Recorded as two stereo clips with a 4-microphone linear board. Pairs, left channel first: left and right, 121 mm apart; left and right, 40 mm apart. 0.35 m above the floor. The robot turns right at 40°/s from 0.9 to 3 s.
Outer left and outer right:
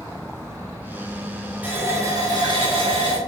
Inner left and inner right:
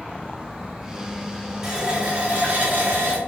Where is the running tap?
165° right, 0.8 m; by 3.2 s 110° right, 0.8 m.